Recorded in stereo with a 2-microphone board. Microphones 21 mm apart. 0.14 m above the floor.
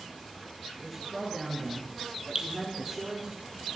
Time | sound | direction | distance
0.8 | a man speaking | 10° left (ahead or behind) | 2.5 m
2.4 | dripping | 35° right (ahead or behind) | 1.0 m